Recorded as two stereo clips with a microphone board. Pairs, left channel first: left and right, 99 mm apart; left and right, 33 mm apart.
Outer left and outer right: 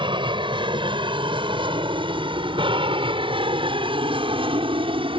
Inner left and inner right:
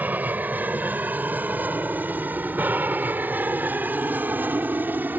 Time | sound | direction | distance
0.0 | an aircraft | 55° right (ahead or behind) | ?